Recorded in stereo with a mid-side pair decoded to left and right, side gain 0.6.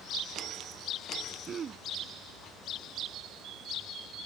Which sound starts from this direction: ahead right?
Throat clearing, at 1.5 s.